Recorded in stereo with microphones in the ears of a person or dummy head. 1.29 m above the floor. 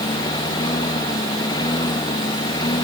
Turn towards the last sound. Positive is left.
turn(degrees=20)  # may be behind; listen again after turning